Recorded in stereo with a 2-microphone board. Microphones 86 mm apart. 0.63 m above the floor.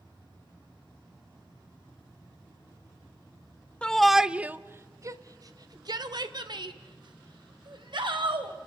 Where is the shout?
10° left (ahead or behind), 0.7 m; by 8.5 s 70° right (ahead or behind), 3 m.